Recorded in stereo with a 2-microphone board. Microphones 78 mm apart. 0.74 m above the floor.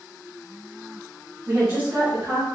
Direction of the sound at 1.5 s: 25° right (ahead or behind).